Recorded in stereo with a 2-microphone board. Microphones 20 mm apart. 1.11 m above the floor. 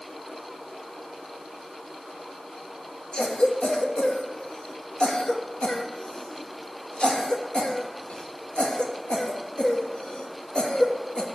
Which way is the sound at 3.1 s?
60° left (ahead or behind).